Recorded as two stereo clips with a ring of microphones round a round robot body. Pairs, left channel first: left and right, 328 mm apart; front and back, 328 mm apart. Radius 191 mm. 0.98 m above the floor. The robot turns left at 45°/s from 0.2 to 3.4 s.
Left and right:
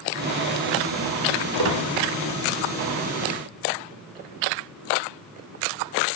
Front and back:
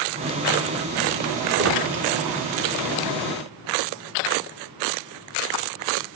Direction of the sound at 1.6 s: 125° right.